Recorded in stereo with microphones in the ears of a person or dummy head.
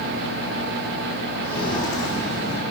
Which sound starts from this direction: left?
Footsteps, at 1.4 s.